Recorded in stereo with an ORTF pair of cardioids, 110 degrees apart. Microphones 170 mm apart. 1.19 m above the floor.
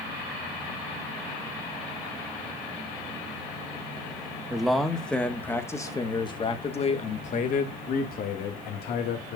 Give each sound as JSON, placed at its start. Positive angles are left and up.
{"t": 4.5, "sound": "a man speaking", "azimuth_deg": -5, "distance_m": 2.0}